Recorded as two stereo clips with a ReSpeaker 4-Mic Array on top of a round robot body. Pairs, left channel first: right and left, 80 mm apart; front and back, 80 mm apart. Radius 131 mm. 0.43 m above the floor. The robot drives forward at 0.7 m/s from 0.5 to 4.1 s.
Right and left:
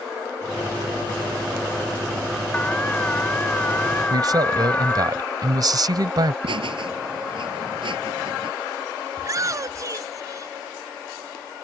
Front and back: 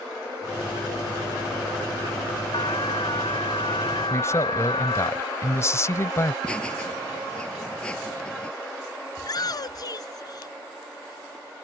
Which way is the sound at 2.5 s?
15° right.